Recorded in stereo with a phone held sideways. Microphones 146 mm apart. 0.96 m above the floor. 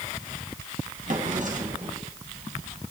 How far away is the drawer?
About 2.5 m.